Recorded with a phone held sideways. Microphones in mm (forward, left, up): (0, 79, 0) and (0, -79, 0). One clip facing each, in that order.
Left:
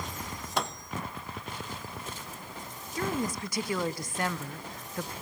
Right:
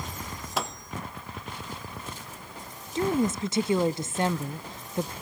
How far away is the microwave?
About 0.9 m.